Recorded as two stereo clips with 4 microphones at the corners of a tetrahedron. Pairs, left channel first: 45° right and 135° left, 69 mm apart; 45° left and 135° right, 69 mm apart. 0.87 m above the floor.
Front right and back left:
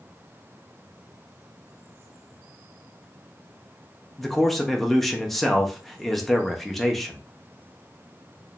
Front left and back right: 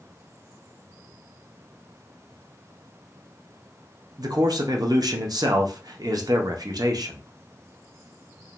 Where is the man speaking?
130° right, 0.5 m.